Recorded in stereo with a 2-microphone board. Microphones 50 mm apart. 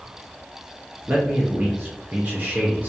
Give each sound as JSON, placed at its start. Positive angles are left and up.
{"t": 1.1, "sound": "a man speaking", "side_deg": -35, "distance_m": 0.5}